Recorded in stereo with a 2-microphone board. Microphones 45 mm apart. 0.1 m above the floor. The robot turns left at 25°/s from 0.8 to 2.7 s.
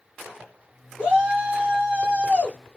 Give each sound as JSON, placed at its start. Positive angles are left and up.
{"t": 1.0, "sound": "a shout", "azimuth_deg": -65, "distance_m": 2.0}